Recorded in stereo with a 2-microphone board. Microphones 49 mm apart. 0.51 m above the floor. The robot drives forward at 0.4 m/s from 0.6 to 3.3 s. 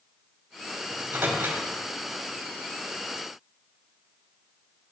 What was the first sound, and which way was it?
A microwave, 45° right (ahead or behind).